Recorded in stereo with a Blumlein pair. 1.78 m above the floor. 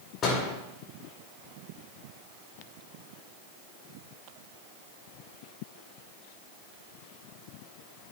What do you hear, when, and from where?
0.2 s a door slam: 30° left, 5 m